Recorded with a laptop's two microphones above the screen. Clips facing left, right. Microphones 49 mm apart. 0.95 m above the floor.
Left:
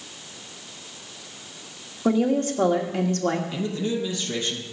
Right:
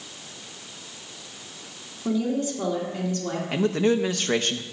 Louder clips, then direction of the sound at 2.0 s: Left 4 dB; 55° left (ahead or behind).